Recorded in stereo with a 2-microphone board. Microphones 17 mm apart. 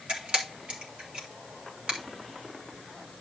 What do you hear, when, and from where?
0.1 s a camera shutter: 75° right (ahead or behind), 3.5 m